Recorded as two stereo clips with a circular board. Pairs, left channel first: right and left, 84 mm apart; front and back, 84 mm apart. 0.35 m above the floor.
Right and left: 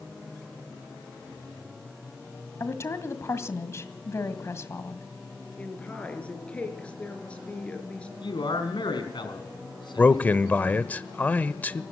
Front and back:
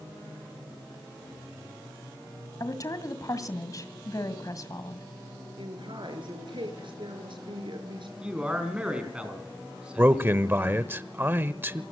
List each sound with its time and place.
2.6 s a woman speaking: 40° right, 1.9 m
5.6 s a woman speaking: 165° right, 4.5 m
8.2 s a man speaking: 105° right, 4.5 m
10.0 s a man speaking: 140° right, 1.0 m